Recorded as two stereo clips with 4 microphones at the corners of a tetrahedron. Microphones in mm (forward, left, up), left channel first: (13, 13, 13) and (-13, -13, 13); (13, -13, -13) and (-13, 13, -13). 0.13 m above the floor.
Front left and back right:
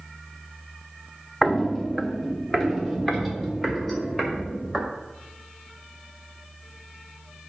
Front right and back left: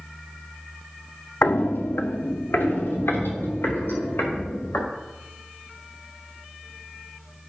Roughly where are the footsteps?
Ahead right.